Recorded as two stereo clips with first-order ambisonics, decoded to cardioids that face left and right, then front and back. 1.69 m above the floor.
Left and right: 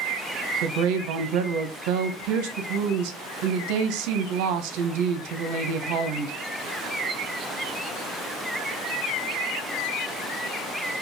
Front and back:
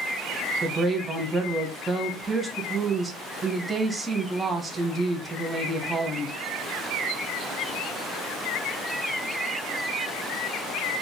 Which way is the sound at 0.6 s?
100° right.